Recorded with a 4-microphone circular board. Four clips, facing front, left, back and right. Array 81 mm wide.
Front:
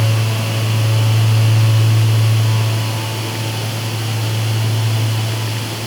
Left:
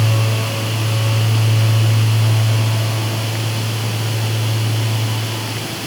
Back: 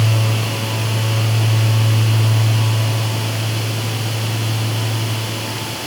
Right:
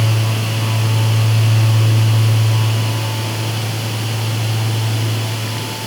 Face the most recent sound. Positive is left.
No sound to turn to.